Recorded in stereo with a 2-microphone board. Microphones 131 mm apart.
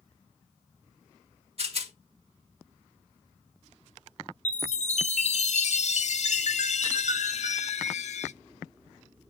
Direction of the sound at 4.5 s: 60° left (ahead or behind).